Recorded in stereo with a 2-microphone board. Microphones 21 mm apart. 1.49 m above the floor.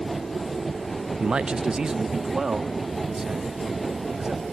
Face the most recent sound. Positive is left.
turn(degrees=-25)  # may be behind; listen again after turning